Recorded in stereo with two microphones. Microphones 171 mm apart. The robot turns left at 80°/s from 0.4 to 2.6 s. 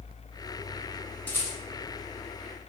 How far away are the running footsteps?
No running footsteps in this recording.